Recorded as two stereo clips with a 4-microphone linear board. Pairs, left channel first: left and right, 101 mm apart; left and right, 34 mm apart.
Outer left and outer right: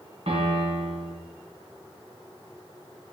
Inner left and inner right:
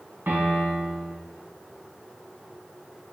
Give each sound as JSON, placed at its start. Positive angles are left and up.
{"t": 0.3, "sound": "a piano", "side_deg": -80, "distance_m": 1.9}